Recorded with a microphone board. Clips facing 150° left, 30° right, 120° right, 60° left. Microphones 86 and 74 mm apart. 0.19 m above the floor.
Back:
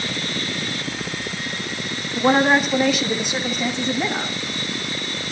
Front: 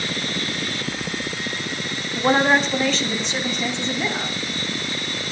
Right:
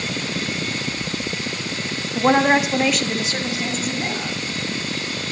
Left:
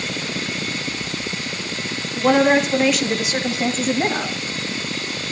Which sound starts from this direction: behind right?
A woman speaking, at 2.1 s.